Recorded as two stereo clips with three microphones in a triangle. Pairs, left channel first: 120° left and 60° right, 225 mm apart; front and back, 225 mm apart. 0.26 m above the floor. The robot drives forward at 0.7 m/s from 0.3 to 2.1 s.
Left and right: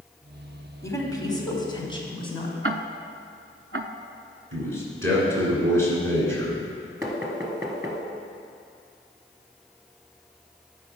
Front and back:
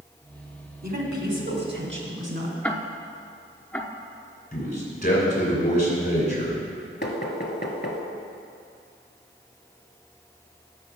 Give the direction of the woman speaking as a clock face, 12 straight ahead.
6 o'clock.